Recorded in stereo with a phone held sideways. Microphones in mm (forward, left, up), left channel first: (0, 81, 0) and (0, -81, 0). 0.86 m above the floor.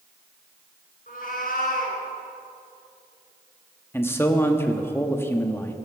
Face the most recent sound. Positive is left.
turn(degrees=15)  # may be behind; listen again after turning